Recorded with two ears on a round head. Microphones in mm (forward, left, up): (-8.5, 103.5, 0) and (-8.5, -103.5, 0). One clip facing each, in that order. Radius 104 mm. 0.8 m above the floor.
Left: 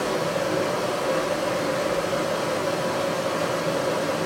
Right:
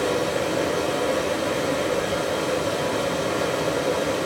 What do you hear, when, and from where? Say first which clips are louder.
0.0 s running water: right 2 dB; 35° right (ahead or behind), 1.4 m